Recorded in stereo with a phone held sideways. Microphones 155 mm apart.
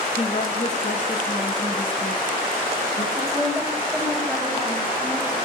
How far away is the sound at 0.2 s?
About 2.5 m.